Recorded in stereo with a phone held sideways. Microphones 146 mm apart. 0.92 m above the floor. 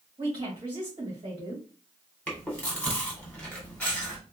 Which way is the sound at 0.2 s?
35° right (ahead or behind).